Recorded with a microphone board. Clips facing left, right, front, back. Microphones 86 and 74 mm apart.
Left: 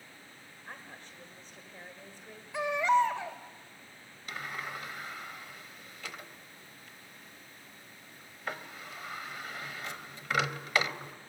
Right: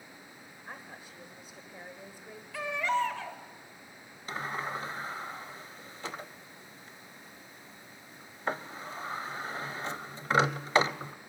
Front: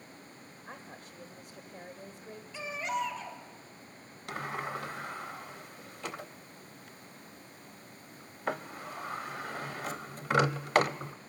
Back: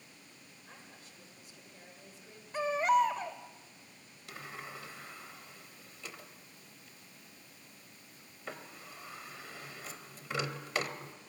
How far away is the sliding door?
About 0.6 m.